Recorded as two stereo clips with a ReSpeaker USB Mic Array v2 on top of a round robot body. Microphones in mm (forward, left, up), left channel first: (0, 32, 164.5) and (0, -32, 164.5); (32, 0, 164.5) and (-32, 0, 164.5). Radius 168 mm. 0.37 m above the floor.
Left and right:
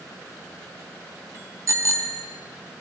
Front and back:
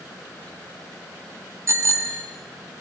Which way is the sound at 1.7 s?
130° right.